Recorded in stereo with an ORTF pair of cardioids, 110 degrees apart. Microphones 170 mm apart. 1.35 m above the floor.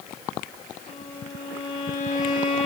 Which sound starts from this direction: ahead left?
A violin, at 0.9 s.